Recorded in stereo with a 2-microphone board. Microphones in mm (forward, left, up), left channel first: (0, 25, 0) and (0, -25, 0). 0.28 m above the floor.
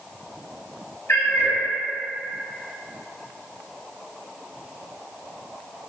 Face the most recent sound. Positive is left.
turn(degrees=55)  # may be behind; listen again after turning